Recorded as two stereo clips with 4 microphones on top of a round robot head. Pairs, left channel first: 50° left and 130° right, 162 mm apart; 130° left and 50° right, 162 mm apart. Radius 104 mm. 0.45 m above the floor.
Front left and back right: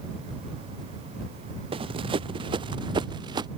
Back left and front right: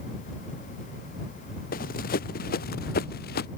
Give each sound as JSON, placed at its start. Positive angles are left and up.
{"t": 1.7, "sound": "running footsteps", "azimuth_deg": 170}